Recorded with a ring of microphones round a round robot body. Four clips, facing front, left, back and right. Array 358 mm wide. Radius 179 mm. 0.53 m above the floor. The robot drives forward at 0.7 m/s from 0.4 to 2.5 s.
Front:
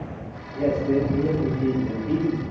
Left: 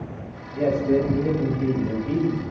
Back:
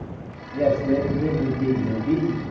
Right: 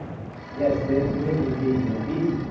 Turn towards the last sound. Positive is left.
turn(degrees=170)